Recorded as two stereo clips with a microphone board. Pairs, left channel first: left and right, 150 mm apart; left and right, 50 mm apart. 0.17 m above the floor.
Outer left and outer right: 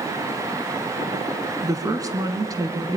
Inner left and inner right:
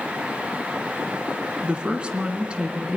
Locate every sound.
1.6 s a woman speaking: 20° right (ahead or behind), 1.9 m